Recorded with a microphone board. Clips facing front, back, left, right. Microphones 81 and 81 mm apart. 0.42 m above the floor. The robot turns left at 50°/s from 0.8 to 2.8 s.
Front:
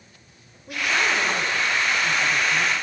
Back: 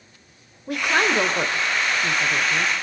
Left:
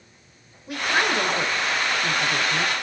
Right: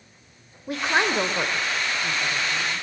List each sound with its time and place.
0.7 s a woman speaking: 140° right, 1.7 m; by 2.7 s 125° left, 1.7 m